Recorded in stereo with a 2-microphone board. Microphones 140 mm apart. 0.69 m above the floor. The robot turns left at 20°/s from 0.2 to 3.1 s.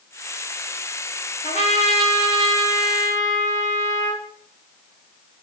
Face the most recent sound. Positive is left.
turn(degrees=20)